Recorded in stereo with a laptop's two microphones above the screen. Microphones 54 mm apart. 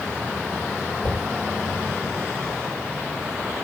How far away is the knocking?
About 3 m.